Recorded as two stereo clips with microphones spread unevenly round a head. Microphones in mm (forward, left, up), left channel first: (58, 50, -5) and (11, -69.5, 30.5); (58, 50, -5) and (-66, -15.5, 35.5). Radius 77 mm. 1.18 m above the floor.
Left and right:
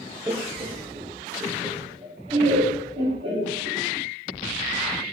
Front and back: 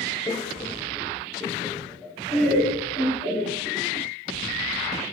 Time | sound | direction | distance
0.3 | laughter | 30° right | 0.6 m